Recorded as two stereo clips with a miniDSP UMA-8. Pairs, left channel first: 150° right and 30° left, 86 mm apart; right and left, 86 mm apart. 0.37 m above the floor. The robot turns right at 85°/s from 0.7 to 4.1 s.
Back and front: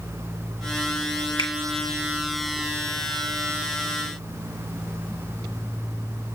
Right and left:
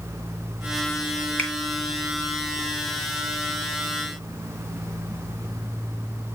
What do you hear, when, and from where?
1.4 s a finger snap: 160° right, 2.5 m; by 1.5 s 145° right, 2.5 m